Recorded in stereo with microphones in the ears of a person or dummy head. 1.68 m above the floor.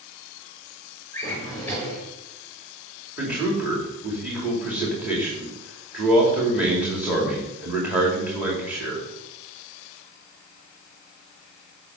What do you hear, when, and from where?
1.1 s a drawer: 15° left (ahead or behind), 5 m
3.2 s a man speaking: 5° right (ahead or behind), 4 m